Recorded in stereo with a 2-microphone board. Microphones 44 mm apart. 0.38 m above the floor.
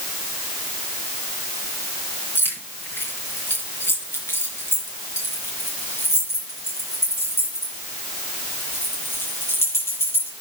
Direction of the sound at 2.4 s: 60° left (ahead or behind).